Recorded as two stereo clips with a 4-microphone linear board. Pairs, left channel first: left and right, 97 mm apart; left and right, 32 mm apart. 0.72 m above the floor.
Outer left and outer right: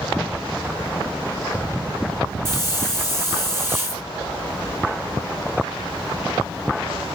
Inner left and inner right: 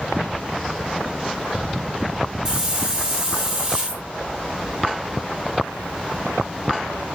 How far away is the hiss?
About 5 m.